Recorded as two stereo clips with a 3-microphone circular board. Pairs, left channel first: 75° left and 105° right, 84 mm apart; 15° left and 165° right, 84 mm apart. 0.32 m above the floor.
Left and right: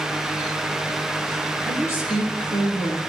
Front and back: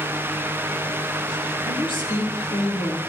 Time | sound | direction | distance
1.7 | a woman speaking | 15° left | 5 m